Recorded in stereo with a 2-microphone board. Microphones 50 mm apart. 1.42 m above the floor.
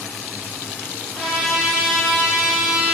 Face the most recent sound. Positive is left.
turn(degrees=0)  # may be behind; listen again after turning